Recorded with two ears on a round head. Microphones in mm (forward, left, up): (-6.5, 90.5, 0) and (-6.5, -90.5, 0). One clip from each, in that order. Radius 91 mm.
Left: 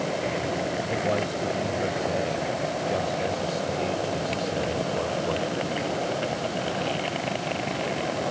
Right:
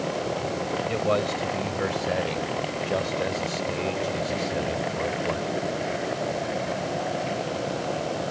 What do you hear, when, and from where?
0.9 s a man speaking: 55° right (ahead or behind); by 5.6 s centre (ahead or behind)